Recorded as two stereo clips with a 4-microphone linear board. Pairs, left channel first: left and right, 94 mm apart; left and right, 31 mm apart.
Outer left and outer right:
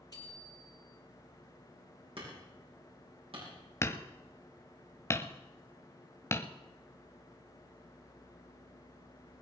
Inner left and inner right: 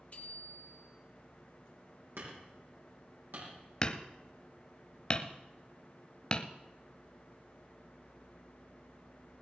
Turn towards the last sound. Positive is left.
turn(degrees=30)  # may be behind; listen again after turning